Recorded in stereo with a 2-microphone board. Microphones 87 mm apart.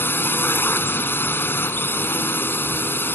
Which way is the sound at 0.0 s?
25° left (ahead or behind).